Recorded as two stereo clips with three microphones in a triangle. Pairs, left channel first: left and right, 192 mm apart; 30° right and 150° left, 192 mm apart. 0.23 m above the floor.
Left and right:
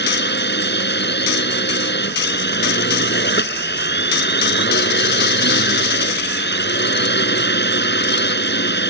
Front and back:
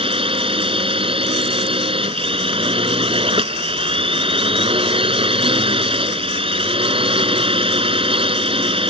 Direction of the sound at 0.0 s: 90° left.